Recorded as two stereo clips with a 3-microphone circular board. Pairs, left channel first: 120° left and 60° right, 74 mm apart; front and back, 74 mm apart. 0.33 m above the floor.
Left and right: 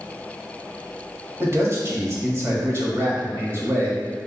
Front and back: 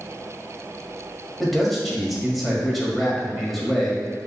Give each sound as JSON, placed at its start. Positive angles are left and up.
{"t": 1.4, "sound": "a man speaking", "azimuth_deg": -90, "distance_m": 1.3}